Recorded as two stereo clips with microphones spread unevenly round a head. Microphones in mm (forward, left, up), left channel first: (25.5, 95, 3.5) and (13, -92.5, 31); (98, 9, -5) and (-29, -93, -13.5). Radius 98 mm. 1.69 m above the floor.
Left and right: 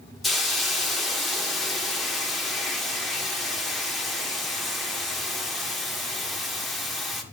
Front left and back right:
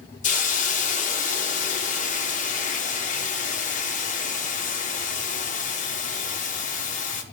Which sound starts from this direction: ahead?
A hiss, at 0.2 s.